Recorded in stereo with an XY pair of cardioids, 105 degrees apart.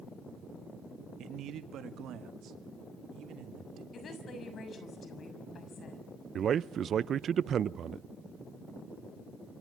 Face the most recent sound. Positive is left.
turn(degrees=-50)